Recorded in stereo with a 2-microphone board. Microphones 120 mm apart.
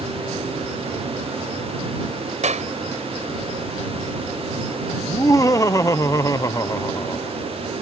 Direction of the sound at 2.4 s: 80° right.